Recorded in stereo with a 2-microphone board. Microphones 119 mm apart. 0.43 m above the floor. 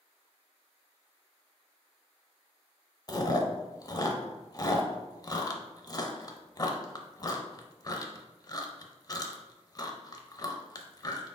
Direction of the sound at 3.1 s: 35° left (ahead or behind).